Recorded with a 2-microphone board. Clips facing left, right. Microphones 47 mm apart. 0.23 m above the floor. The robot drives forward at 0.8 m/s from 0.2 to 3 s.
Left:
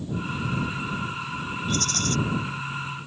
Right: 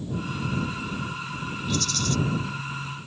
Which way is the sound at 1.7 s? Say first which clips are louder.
Even; 45° left (ahead or behind).